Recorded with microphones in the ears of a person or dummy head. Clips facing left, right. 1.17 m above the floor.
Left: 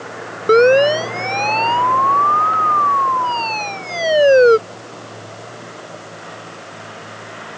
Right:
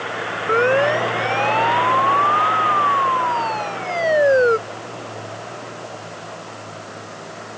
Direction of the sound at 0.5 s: 50° left (ahead or behind).